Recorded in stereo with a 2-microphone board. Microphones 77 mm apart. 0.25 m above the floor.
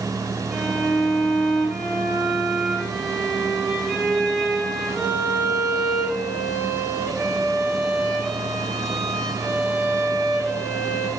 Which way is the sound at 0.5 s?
5° left (ahead or behind).